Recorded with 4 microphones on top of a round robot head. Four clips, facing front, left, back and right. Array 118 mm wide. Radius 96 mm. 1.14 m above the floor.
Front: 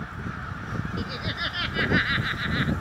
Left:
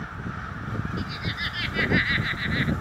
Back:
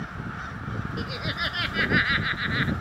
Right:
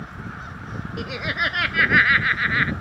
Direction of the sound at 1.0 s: 95° right.